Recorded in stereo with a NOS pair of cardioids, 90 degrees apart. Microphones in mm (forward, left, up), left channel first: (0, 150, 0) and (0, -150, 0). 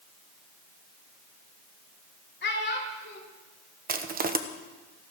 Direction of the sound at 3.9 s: 30° right.